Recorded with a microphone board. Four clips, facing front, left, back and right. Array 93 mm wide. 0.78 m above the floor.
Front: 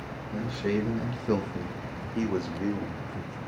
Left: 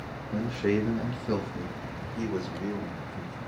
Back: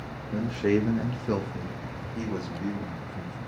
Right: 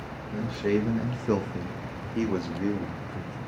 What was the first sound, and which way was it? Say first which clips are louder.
A man speaking: even, back 4 dB; 150° left.